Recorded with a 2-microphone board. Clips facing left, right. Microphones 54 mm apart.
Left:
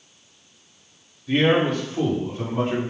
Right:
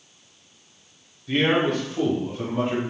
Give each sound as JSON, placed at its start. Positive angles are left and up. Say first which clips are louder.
{"t": 1.3, "sound": "a man speaking", "louder": "left 2 dB", "side_deg": 5, "distance_m": 1.7}